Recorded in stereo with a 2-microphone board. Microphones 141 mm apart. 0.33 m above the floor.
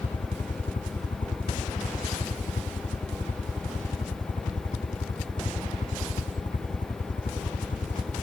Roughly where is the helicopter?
Left.